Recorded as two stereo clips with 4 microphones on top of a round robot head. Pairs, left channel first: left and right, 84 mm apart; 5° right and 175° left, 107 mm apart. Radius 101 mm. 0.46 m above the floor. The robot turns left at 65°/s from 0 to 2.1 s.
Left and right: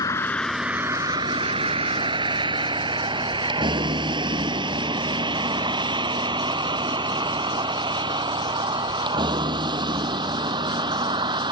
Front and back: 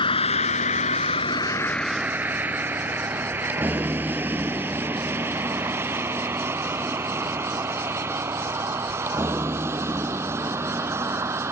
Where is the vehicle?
35° left; by 11.5 s 115° right.